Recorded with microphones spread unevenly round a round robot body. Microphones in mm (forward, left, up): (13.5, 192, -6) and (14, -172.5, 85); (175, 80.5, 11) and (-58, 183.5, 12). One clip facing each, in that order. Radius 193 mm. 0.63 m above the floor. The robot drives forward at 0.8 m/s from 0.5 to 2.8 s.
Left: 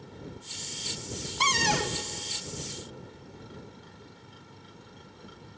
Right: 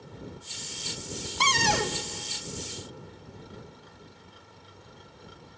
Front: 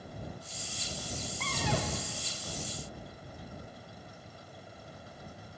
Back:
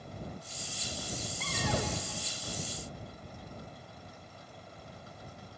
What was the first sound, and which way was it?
A cupboard door, 115° right.